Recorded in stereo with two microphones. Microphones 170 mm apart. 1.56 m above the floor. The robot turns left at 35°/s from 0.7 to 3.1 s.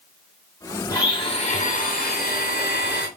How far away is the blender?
About 0.8 m.